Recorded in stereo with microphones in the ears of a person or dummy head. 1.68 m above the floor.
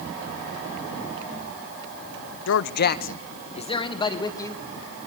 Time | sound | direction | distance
2.5 | a man speaking | 75° left (ahead or behind) | 1.0 m